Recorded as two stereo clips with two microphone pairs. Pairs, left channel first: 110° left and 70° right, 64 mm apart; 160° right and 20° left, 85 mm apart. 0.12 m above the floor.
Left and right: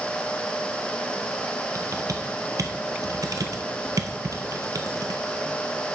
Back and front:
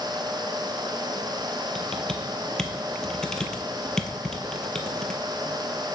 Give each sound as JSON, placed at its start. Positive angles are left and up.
{"t": 1.8, "sound": "typing on a keyboard", "azimuth_deg": -80, "distance_m": 0.8}